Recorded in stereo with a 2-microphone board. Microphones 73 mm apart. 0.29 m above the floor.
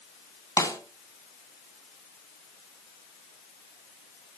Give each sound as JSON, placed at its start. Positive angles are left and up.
{"t": 0.6, "sound": "a snare drum", "side_deg": 55, "distance_m": 2.5}